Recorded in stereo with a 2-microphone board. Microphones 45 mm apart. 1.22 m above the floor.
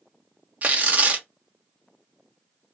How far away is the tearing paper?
About 0.6 m.